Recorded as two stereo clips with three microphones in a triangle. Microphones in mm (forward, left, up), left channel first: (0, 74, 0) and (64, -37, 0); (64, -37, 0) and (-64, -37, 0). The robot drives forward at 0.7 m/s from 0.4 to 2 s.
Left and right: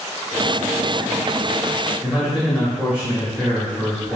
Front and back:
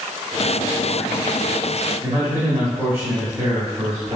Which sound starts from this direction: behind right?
A man speaking, at 2.0 s.